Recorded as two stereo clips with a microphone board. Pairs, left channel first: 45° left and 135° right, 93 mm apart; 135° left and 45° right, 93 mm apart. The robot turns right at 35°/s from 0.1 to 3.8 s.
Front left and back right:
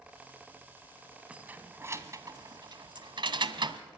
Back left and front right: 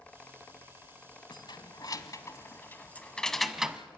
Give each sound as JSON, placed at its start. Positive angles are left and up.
{"t": 1.3, "sound": "keys jangling", "azimuth_deg": 150, "distance_m": 1.2}